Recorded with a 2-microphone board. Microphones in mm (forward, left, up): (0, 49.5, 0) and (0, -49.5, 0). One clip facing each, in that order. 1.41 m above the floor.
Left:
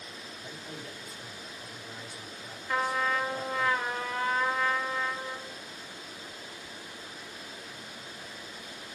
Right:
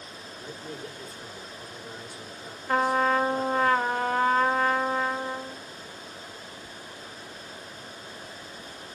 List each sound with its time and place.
0.4 s a man speaking: 65° right (ahead or behind), 4 m
2.7 s a trumpet: 55° right (ahead or behind), 1.1 m